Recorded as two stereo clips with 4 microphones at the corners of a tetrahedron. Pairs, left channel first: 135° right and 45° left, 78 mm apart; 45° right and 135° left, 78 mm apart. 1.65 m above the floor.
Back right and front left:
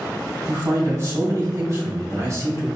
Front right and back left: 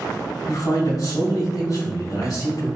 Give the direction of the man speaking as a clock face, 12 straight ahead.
12 o'clock.